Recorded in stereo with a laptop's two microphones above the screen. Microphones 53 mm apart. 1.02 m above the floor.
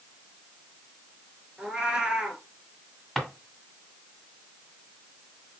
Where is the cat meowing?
15° right (ahead or behind), 1.1 m.